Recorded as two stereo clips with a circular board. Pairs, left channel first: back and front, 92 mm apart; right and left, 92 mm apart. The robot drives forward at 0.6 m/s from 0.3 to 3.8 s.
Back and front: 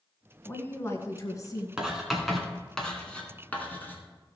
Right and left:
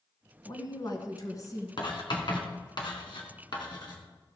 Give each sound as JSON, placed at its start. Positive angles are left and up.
{"t": 0.5, "sound": "a woman speaking", "azimuth_deg": -115, "distance_m": 1.7}
{"t": 1.8, "sound": "writing", "azimuth_deg": -80, "distance_m": 2.5}